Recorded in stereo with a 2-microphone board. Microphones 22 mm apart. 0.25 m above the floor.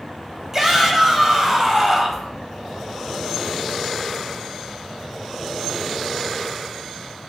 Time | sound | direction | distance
0.5 | a shout | 20° right (ahead or behind) | 1.3 m